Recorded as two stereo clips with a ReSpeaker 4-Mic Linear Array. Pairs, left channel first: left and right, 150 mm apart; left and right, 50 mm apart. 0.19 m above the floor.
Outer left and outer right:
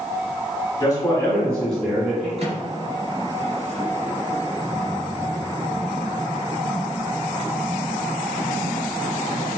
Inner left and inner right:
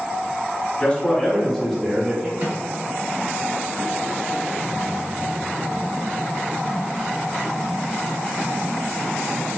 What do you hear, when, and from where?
0.8 s a man speaking: 25° left (ahead or behind), 1.6 m; by 2.3 s 10° right (ahead or behind), 1.8 m
2.4 s a microwave: 45° right (ahead or behind), 1.5 m